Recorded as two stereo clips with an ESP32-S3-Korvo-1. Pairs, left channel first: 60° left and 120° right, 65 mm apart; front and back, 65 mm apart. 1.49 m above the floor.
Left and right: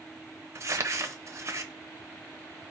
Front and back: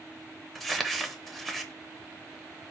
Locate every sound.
0.6 s crumpling: 90° right, 0.7 m